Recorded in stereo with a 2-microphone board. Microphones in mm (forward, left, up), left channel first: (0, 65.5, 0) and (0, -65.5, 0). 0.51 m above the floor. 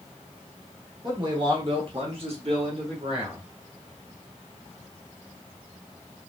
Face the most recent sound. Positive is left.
turn(degrees=-40)  # may be behind; listen again after turning